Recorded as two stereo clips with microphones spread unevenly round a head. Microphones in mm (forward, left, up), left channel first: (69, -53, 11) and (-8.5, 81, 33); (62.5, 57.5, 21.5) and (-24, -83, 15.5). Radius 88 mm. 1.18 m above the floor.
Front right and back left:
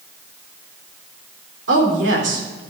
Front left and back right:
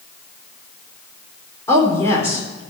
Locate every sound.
1.7 s a woman speaking: 135° left, 3.5 m